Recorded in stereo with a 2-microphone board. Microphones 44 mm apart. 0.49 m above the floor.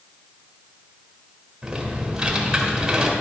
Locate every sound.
1.6 s typing on a keyboard: 15° right (ahead or behind), 1.5 m